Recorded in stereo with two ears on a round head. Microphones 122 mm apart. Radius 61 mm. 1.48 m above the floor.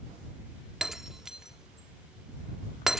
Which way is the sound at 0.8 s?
5° right (ahead or behind).